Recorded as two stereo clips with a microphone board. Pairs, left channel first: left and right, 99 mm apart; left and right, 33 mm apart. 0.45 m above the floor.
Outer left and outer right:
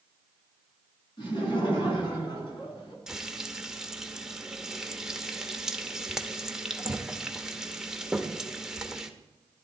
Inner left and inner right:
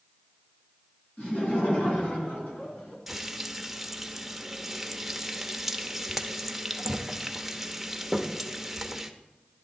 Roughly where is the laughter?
Left.